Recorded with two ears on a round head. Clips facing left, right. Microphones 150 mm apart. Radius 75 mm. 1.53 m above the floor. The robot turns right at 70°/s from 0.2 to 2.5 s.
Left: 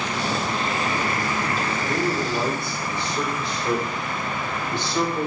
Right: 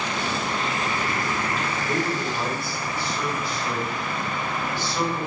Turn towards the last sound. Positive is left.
turn(degrees=20)